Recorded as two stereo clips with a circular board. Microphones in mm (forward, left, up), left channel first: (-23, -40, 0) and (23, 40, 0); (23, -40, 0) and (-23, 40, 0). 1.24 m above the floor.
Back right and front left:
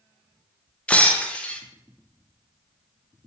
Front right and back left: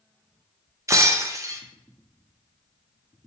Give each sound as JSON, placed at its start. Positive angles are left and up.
{"t": 0.9, "sound": "breaking glass", "azimuth_deg": 170, "distance_m": 0.5}